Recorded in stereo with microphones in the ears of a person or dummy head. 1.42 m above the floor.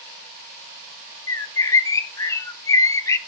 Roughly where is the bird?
Centre.